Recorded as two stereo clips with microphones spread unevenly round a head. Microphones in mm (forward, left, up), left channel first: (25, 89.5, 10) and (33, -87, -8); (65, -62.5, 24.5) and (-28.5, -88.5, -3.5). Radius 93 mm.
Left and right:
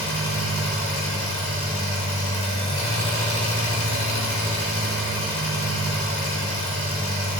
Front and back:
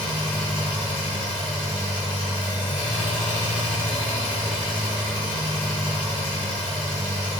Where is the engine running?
115° left, 0.8 m.